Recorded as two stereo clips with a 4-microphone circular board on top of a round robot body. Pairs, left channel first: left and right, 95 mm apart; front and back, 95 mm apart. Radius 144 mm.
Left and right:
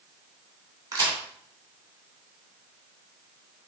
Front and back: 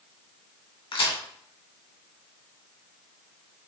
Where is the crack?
35° right, 3 m.